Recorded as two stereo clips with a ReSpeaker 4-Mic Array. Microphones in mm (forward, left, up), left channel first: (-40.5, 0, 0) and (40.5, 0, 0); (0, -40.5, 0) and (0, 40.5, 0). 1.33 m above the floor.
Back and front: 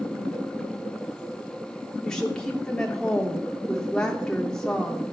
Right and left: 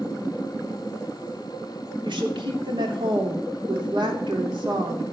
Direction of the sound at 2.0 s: 100° left.